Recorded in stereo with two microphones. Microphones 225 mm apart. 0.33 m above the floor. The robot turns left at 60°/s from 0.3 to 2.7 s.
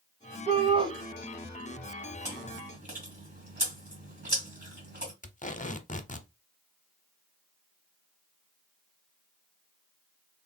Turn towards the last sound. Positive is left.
turn(degrees=35)  # may be behind; listen again after turning